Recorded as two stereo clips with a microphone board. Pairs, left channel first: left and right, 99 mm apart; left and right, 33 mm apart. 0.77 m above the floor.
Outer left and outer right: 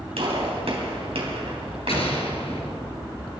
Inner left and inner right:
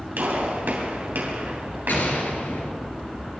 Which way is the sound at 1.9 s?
80° left.